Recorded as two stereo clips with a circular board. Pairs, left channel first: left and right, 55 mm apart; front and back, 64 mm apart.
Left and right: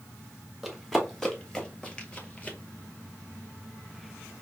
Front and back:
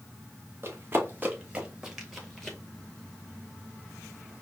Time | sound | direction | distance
0.6 | running footsteps | 175° right | 1.7 m